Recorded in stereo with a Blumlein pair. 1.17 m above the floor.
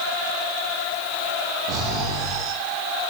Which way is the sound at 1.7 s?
40° right.